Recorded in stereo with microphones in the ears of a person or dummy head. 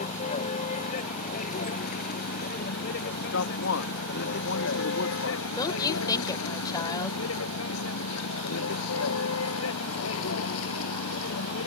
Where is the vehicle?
40° left (ahead or behind); by 11.7 s 80° left.